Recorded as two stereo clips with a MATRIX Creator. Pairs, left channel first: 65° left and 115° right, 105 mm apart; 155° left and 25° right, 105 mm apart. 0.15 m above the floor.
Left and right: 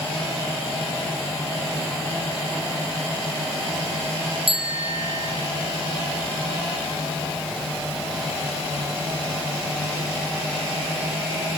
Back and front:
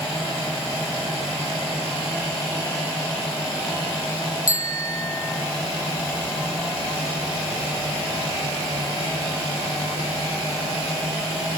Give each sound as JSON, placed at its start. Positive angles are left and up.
{"t": 4.5, "sound": "a bicycle bell", "azimuth_deg": -145, "distance_m": 4.0}